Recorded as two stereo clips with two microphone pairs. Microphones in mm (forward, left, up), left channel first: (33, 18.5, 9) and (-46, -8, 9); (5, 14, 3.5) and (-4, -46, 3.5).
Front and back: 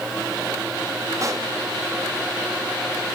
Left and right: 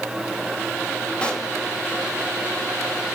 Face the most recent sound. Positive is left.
turn(degrees=155)